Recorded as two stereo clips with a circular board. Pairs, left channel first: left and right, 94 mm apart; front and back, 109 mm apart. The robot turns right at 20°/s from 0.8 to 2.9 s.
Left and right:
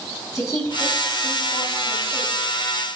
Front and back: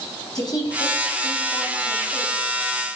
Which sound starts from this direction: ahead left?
A woman speaking, at 0.3 s.